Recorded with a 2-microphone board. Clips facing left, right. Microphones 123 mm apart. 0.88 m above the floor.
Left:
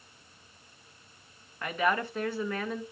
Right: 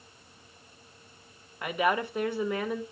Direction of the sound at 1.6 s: 15° right (ahead or behind).